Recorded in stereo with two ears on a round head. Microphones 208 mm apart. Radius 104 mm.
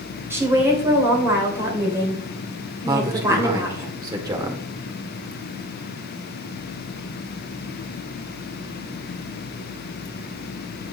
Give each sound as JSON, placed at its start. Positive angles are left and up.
{"t": 0.3, "sound": "a woman speaking", "side_deg": -10, "distance_m": 2.5}
{"t": 2.9, "sound": "a man speaking", "side_deg": -15, "distance_m": 1.6}